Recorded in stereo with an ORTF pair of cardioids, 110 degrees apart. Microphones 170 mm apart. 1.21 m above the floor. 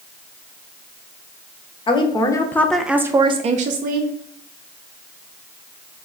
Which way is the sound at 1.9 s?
30° left.